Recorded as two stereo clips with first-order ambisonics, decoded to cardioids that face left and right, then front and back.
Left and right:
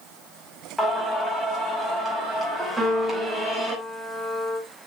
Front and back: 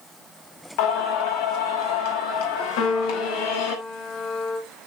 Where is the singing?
Straight ahead, 5.5 m.